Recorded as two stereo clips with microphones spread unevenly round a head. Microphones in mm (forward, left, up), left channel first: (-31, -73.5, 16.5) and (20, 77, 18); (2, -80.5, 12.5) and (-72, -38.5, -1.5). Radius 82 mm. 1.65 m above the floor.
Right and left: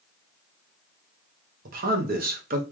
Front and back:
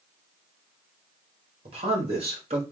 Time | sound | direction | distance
1.6 | a man speaking | 110° left | 1.1 m